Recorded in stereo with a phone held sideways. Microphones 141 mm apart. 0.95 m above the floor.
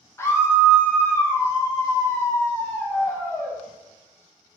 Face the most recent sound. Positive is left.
turn(degrees=15)  # may be behind; listen again after turning